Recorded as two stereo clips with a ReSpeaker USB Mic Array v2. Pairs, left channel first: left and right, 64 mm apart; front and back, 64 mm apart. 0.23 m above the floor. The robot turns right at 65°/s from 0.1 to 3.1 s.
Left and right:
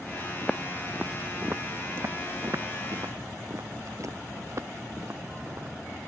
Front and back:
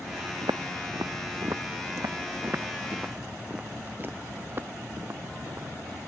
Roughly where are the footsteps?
Behind.